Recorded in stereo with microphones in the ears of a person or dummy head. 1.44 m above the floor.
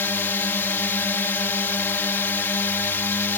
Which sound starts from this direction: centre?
A drone, at 0.0 s.